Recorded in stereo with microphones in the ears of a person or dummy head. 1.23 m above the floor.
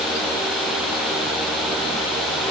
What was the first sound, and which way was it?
Only background noise.